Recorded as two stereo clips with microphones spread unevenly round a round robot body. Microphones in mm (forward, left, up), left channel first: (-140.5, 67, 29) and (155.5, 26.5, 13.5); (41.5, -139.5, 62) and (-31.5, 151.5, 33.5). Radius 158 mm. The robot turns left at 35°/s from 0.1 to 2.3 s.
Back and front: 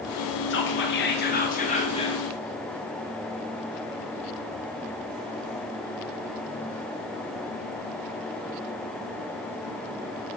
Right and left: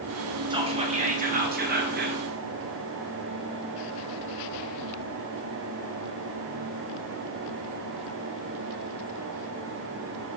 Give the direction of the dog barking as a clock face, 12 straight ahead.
I don't hear a dog barking.